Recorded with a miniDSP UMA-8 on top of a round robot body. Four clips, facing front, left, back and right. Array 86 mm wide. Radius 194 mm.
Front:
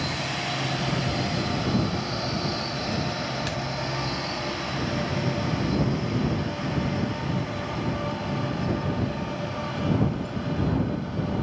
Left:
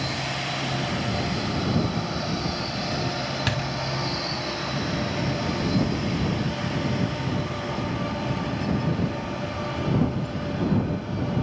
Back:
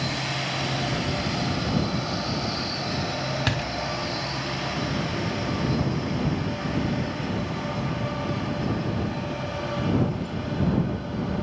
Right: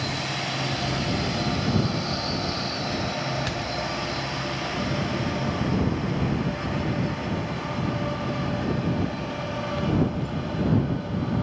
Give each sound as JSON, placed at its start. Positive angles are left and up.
{"t": 3.5, "sound": "a door slam", "azimuth_deg": 150}